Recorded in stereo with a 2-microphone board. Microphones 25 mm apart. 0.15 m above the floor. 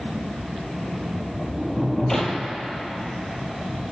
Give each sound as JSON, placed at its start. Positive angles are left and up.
{"t": 1.1, "sound": "a sliding door", "side_deg": 10, "distance_m": 0.8}